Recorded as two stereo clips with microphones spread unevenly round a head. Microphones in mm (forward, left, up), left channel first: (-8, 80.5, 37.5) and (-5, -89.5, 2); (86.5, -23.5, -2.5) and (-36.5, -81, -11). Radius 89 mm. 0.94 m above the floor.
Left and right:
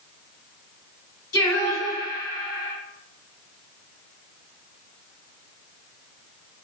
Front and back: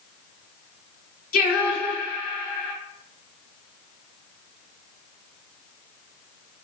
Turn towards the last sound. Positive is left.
turn(degrees=20)